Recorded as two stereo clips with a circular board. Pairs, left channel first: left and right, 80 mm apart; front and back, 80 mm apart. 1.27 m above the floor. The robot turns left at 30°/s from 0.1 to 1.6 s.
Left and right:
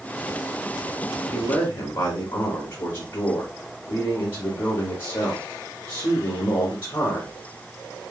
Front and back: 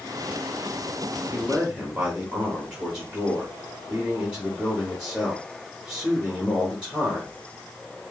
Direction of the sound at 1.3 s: 115° left.